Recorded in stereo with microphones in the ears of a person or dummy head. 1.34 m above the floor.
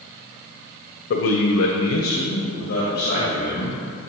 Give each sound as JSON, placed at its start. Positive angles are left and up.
{"t": 1.1, "sound": "a man speaking", "side_deg": 55, "distance_m": 0.6}